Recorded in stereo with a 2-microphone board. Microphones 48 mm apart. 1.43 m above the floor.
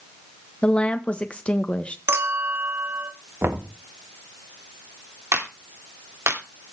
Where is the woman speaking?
25° left (ahead or behind), 1.3 m.